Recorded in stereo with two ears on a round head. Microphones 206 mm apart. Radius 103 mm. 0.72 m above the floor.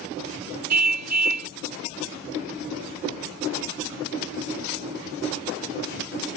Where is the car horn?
85° right.